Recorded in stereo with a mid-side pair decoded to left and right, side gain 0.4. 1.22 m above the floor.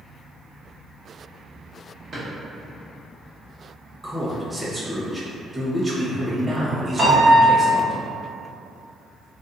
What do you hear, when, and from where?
2.1 s a drawer: 65° right, 1.1 m
4.0 s a man speaking: 25° right, 1.1 m
7.0 s a piano: 45° right, 0.8 m